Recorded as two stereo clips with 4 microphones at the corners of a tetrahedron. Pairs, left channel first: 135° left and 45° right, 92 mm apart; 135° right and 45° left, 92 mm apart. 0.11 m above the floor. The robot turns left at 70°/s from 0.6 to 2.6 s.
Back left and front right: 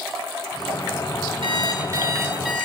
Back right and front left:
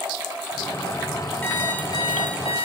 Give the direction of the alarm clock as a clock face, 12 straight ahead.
2 o'clock.